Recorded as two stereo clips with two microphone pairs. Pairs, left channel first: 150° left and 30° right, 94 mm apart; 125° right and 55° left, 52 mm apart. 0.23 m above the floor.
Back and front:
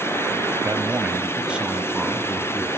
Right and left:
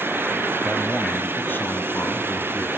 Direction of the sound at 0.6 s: 15° right.